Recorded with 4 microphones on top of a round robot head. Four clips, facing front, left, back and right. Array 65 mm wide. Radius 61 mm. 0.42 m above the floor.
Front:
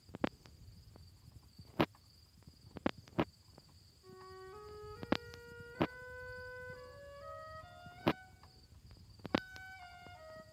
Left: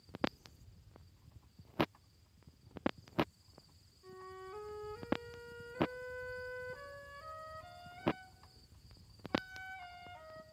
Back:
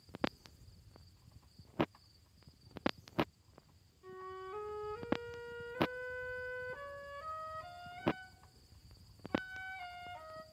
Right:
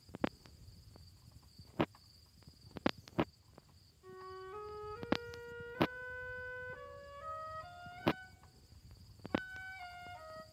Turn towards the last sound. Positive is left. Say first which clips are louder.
# right 1 dB, back 6 dB
turn(degrees=175)